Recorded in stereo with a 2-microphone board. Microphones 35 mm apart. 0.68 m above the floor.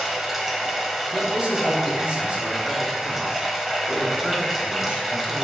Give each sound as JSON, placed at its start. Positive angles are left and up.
{"t": 0.0, "sound": "running water", "side_deg": -5, "distance_m": 1.2}
{"t": 1.1, "sound": "a man speaking", "side_deg": -30, "distance_m": 3.0}